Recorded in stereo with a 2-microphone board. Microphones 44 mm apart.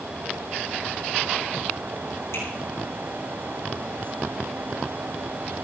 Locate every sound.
2.3 s a finger snap: 70° left (ahead or behind), 5.5 m